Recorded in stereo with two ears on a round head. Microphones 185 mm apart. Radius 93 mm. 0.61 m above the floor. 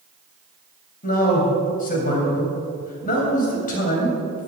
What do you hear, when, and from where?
1.0 s a man speaking: 40° left (ahead or behind), 3.5 m